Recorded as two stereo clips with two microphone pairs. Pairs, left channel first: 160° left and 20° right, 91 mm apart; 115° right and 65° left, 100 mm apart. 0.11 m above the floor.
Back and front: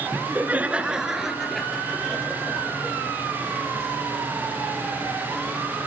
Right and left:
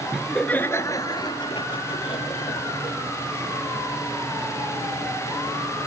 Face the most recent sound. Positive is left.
turn(degrees=-120)